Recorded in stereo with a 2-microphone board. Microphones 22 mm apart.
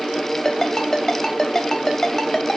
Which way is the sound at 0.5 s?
25° left (ahead or behind).